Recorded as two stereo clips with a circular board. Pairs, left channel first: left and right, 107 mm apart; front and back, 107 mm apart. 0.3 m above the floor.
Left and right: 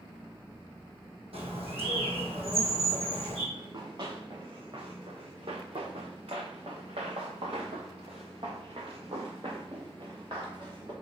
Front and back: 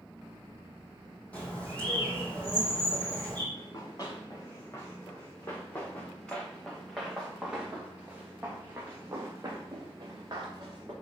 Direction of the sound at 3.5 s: 50° right.